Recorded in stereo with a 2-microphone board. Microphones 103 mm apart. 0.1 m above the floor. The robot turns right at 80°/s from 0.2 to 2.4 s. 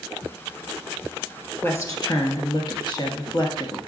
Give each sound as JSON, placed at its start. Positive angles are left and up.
{"t": 1.6, "sound": "a woman speaking", "azimuth_deg": 30, "distance_m": 1.5}